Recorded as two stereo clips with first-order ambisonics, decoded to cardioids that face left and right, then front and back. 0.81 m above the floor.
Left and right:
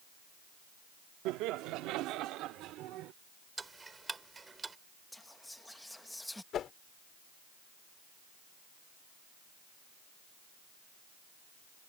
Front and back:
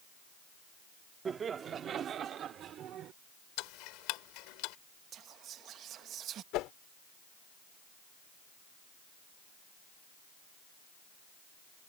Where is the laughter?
115° right; by 3.1 s 130° right.